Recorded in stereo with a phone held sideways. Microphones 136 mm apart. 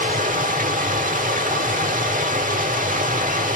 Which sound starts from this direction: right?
Running water, at 0.0 s.